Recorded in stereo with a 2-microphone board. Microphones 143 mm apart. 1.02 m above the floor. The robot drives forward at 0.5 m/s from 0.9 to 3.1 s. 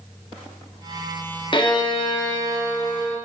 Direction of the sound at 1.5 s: 35° left (ahead or behind).